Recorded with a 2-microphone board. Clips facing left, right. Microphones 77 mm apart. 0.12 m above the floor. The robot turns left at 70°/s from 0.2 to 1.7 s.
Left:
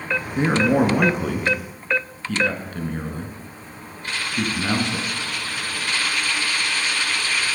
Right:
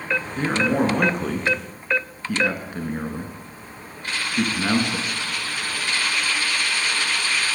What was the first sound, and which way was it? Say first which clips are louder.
A man speaking: left 4 dB; 20° left (ahead or behind).